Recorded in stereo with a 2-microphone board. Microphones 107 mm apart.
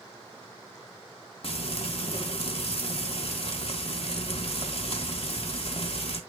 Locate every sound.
1.4 s frying: 60° left (ahead or behind), 2 m